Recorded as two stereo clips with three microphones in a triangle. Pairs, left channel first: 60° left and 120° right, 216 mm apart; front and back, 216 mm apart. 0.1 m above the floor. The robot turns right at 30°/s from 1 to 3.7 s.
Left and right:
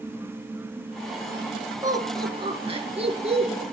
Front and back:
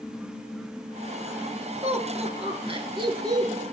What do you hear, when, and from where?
1.8 s laughter: 175° right, 1.7 m; by 3.6 s 120° right, 1.7 m